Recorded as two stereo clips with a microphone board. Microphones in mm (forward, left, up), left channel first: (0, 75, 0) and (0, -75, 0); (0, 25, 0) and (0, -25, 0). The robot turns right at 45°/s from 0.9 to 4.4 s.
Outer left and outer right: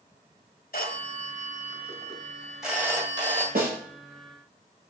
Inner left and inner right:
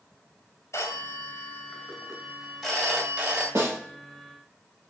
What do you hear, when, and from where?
0.7 s a phone ringing: 105° left, 1.9 m; by 3.5 s 140° right, 1.9 m
3.5 s a snare drum: 85° right, 2.5 m; by 3.8 s 75° right (ahead or behind), 2.5 m